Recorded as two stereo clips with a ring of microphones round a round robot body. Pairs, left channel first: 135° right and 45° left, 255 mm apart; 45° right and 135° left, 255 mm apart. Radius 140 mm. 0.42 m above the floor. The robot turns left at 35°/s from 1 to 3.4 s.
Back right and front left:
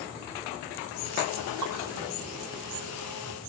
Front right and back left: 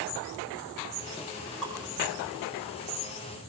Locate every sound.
1.6 s dripping: 45° left, 4.5 m; by 1.7 s 40° left, 4.5 m